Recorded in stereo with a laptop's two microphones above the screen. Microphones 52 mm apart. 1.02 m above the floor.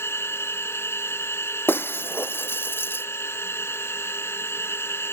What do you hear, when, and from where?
0.0 s a machine running: 50° left (ahead or behind)
1.7 s breaking glass: 45° left (ahead or behind)